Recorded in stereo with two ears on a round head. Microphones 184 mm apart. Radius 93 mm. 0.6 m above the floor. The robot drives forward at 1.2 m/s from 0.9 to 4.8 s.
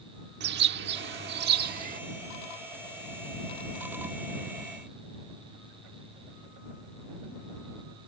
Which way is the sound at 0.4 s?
55° right (ahead or behind).